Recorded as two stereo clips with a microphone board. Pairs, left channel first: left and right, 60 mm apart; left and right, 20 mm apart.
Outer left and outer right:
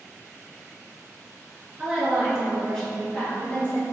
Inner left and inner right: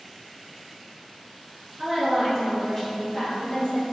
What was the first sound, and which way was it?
A woman speaking, 15° right (ahead or behind).